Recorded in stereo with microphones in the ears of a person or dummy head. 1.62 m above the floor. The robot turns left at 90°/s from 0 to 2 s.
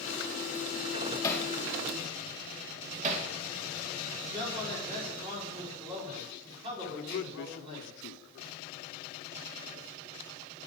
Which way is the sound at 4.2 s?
35° right (ahead or behind).